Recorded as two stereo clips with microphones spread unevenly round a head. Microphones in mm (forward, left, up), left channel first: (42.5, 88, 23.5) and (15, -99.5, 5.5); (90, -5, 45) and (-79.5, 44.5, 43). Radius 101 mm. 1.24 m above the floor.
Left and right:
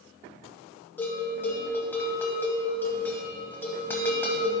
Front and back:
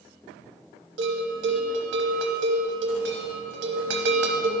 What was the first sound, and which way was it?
A bell, 165° left.